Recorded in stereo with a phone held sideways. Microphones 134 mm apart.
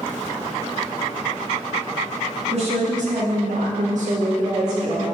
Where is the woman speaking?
55° right (ahead or behind), 1.1 m; by 5.0 s 20° right (ahead or behind), 0.9 m.